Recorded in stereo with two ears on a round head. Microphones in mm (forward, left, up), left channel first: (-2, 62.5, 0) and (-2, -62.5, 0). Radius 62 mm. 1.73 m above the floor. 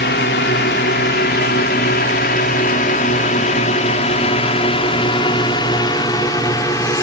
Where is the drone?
85° left; by 7.0 s 20° left (ahead or behind).